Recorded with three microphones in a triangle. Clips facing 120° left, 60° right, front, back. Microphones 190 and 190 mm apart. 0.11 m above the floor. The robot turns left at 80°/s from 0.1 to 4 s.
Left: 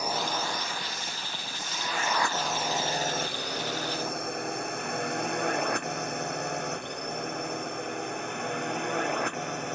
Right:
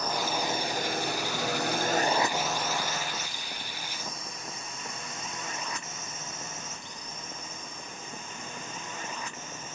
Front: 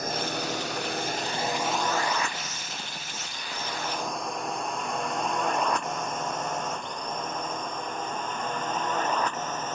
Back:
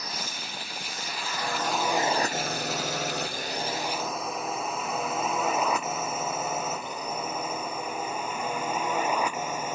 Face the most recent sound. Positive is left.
turn(degrees=100)